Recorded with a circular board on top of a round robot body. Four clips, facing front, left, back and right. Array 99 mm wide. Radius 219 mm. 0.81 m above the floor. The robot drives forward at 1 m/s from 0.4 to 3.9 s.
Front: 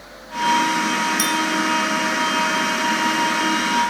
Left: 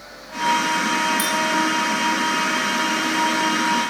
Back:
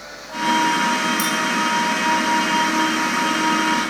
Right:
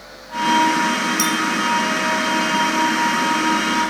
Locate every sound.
1.2 s a clink: 15° right, 3.5 m